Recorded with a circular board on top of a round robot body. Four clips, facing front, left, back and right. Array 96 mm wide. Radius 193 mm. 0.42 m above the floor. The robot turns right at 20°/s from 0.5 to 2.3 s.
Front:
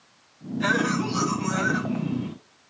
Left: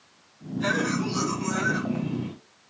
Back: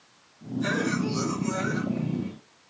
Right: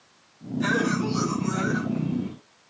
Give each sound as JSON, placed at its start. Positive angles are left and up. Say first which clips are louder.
{"t": 0.6, "sound": "a cough", "louder": "right 2 dB, front 3 dB", "azimuth_deg": -5, "distance_m": 5.0}